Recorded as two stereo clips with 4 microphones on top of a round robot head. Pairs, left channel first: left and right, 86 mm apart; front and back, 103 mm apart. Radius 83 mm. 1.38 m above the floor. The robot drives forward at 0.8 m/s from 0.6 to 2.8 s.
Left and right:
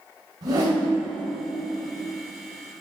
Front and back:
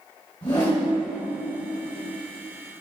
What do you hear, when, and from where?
0.4 s a whoosh: 60° right, 1.8 m; by 0.9 s 65° right, 1.7 m